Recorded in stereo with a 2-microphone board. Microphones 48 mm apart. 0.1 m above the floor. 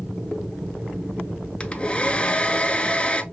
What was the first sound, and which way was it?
A hair dryer, 20° left (ahead or behind).